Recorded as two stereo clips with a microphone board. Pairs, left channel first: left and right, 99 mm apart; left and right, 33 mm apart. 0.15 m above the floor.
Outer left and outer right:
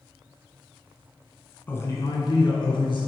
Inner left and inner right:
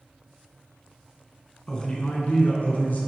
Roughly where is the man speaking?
Centre.